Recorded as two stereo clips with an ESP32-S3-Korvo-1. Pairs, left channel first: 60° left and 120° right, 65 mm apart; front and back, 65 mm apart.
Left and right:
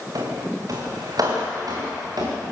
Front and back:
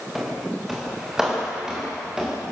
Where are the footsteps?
95° right, 5.5 m; by 2.4 s 105° right, 6.5 m.